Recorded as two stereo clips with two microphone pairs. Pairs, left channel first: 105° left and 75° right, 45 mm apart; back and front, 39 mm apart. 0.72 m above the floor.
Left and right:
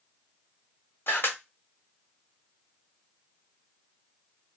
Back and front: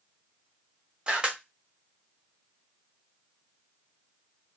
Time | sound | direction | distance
1.1 | a camera shutter | 65° left | 0.7 m